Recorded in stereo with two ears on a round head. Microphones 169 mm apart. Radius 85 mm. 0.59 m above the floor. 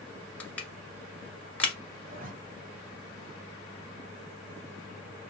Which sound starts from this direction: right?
A zipper, at 2.0 s.